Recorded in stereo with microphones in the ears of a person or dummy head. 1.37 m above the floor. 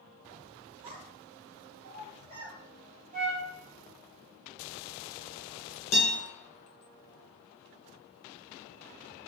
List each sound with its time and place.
0.8 s a child speaking: 25° right (ahead or behind), 0.5 m; by 2.6 s 85° right, 1.3 m
3.1 s a flute: 30° right (ahead or behind), 0.7 m
5.9 s a guitar: 60° left (ahead or behind), 0.9 m